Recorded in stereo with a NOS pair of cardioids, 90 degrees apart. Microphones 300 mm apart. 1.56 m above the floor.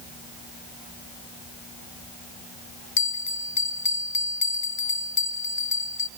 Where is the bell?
65° left, 1.0 m.